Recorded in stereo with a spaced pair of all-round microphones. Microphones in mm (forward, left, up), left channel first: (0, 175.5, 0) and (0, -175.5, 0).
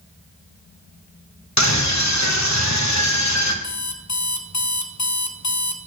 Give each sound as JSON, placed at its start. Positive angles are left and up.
{"t": 1.6, "sound": "a scream", "side_deg": 50, "distance_m": 1.2}
{"t": 3.6, "sound": "an alarm clock", "side_deg": 50, "distance_m": 0.5}